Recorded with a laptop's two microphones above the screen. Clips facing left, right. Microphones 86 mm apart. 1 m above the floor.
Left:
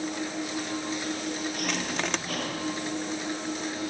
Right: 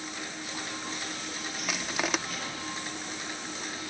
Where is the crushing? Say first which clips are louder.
Right 3 dB; 5° right (ahead or behind).